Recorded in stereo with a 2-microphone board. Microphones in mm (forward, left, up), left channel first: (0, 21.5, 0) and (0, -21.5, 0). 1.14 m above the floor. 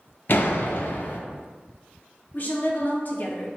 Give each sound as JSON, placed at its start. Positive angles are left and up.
{"t": 0.3, "sound": "a door slam", "side_deg": 55, "distance_m": 0.5}
{"t": 2.3, "sound": "a woman speaking", "side_deg": 50, "distance_m": 0.8}